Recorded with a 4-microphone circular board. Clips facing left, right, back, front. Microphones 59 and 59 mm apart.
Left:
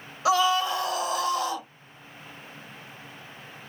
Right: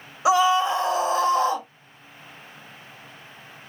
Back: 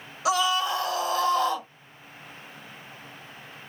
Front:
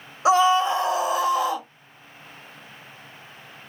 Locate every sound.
0.2 s a scream: 30° right, 1.6 m; by 1.7 s 75° right, 1.6 m